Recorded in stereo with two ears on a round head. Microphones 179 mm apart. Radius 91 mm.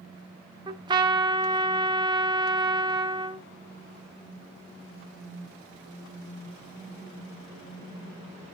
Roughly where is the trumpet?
Right.